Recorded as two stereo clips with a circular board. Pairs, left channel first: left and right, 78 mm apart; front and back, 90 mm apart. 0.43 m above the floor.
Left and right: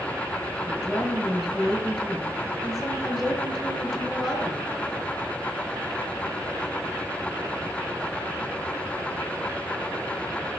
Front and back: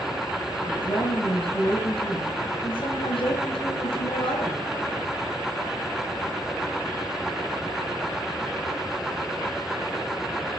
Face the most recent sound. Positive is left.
turn(degrees=0)